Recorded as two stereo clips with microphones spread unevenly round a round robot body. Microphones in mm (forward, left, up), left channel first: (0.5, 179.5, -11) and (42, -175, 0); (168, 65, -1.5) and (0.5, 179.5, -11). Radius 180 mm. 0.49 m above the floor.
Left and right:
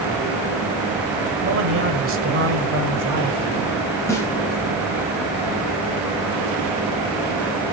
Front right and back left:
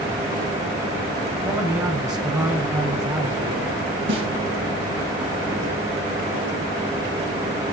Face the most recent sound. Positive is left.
turn(degrees=180)